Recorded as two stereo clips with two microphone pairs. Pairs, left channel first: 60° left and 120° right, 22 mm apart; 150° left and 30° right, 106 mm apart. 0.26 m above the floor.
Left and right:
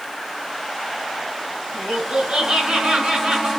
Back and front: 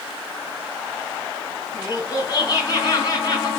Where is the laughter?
160° right, 3 m.